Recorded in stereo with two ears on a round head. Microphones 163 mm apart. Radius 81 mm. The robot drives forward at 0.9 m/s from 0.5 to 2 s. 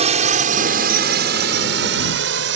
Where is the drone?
40° right (ahead or behind); by 2.6 s 75° right (ahead or behind).